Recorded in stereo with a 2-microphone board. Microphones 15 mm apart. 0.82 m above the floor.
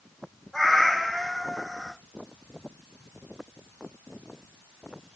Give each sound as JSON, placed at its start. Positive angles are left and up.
{"t": 0.5, "sound": "a cat meowing", "side_deg": 35, "distance_m": 4.0}